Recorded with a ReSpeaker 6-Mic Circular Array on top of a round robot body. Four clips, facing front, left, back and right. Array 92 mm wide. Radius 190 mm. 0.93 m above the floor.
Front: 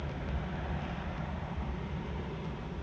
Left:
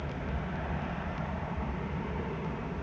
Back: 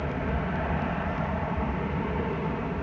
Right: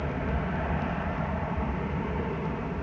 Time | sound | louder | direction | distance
0.0 | an aircraft | right 6 dB, back 10 dB | 150° right | ?